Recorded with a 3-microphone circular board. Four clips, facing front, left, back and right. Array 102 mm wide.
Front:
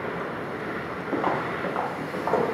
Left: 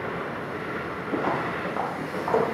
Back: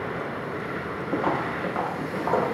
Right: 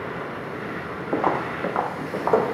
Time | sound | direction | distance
1.1 | footsteps | 85° right | 1.3 m